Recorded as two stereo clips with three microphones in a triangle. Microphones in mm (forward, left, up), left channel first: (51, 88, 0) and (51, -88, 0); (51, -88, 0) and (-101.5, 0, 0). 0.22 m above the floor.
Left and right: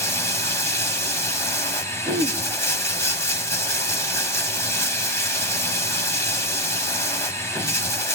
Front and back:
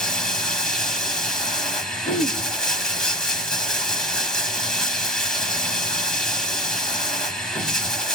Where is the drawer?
I don't hear a drawer.